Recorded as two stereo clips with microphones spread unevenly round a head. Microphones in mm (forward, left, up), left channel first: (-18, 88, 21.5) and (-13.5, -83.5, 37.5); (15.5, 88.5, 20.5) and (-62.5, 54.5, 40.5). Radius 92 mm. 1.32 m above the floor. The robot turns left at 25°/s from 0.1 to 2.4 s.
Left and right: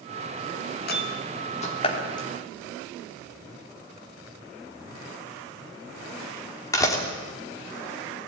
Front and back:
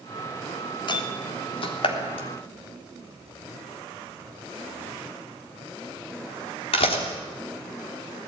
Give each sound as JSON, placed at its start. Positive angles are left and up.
{"t": 0.9, "sound": "a door slam", "azimuth_deg": 55, "distance_m": 3.0}